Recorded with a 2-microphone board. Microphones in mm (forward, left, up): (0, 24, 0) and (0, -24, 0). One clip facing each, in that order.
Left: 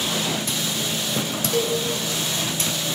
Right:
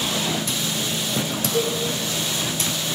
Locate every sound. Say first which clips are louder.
1.5 s a cowbell: left 1 dB; 60° left (ahead or behind), 1.1 m